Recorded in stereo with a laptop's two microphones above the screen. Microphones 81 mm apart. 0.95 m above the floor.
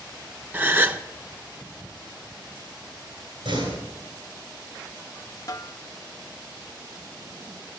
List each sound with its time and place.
0.5 s a gasp: 25° right (ahead or behind), 0.6 m
3.5 s a door slam: 90° right, 8.5 m
5.5 s a snare drum: 45° left (ahead or behind), 0.6 m